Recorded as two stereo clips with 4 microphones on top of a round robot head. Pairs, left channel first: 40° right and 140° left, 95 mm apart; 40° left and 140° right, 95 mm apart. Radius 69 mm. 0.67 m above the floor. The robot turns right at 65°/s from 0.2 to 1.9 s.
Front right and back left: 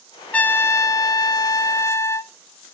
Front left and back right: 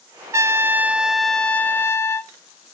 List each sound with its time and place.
0.3 s a trumpet: 105° right, 0.7 m; by 2.3 s 5° right, 0.7 m